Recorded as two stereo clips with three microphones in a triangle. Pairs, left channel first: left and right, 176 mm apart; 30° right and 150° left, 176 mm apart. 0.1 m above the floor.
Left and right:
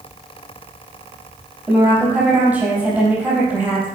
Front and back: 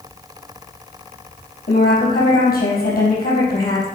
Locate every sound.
1.7 s a woman speaking: 10° right, 3.5 m